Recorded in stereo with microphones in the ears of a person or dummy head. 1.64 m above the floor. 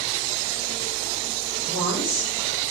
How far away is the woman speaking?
About 5 m.